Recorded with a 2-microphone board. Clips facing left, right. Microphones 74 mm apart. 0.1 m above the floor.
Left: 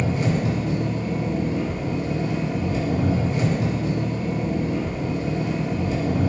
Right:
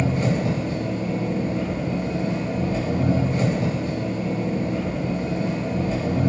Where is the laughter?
No laughter in this recording.